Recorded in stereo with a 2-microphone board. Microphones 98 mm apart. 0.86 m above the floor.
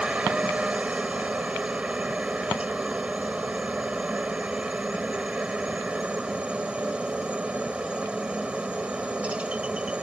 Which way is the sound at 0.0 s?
10° right (ahead or behind).